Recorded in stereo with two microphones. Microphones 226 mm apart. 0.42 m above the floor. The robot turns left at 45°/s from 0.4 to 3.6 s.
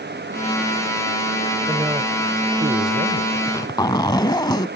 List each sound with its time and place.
1.7 s a man speaking: 20° right; by 3.2 s 95° right
3.4 s a zipper: 10° left (ahead or behind); by 4.7 s 20° left (ahead or behind)